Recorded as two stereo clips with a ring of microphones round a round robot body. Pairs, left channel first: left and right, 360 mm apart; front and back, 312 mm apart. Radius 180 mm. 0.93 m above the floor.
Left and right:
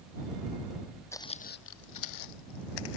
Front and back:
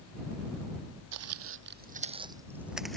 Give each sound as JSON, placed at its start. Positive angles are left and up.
{"t": 1.1, "sound": "footsteps", "azimuth_deg": 170}